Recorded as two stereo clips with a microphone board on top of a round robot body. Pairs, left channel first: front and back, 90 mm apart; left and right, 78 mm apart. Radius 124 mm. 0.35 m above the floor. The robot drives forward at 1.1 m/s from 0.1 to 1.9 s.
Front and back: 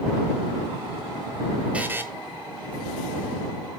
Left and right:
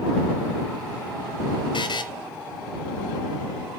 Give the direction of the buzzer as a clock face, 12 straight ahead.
9 o'clock.